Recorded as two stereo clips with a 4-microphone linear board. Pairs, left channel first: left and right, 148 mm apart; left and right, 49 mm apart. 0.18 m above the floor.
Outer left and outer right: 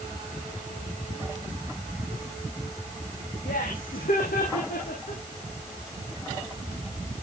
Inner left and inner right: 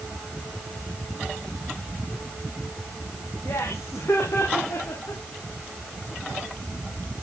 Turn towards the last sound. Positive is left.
turn(degrees=80)